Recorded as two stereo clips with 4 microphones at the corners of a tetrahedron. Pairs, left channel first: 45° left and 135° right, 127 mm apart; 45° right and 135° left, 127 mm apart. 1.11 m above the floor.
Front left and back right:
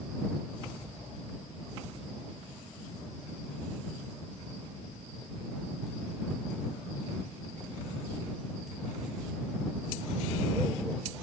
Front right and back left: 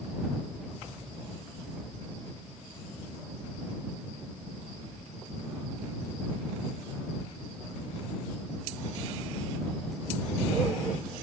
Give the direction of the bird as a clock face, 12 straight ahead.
I don't hear a bird.